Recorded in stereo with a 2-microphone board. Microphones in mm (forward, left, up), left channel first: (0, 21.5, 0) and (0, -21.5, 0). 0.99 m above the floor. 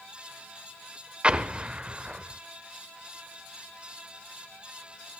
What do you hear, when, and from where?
1.2 s an explosion: 25° right (ahead or behind), 0.8 m